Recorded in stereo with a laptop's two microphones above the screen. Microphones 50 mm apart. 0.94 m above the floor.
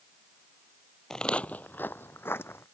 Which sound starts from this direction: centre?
Footsteps, at 1.1 s.